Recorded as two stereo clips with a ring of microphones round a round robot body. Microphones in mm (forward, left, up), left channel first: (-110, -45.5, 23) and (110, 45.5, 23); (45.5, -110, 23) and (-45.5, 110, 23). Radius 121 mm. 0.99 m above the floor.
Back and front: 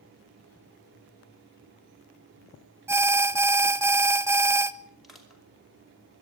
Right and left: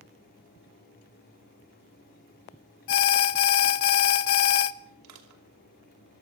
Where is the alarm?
55° right, 1.0 m.